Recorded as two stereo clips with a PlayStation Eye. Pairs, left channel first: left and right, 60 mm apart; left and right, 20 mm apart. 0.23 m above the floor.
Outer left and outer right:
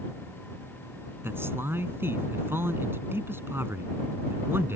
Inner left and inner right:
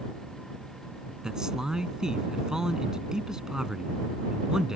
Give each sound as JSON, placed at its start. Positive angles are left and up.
{"t": 1.2, "sound": "a man speaking", "side_deg": -40}